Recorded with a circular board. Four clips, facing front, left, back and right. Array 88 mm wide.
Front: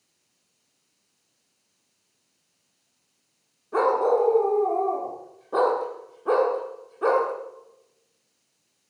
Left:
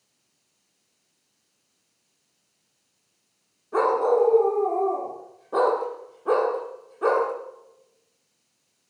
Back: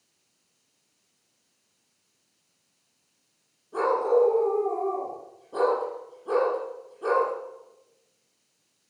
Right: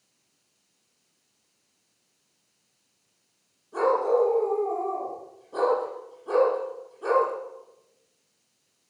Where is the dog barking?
45° left, 10 m.